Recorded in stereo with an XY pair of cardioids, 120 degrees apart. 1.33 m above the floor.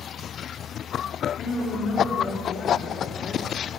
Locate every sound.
1.4 s a woman speaking: 45° left, 3 m